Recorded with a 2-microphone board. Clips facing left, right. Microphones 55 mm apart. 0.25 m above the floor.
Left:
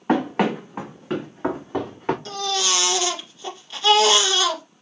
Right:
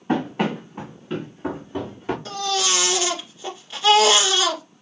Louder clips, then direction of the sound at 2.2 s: Right 1 dB; 10° right (ahead or behind).